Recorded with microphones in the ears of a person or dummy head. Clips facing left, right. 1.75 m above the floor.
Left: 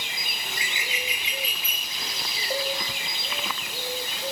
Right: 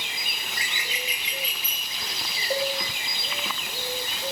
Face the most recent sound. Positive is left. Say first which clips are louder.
# right 3 dB
turn(degrees=-10)  # may be behind; listen again after turning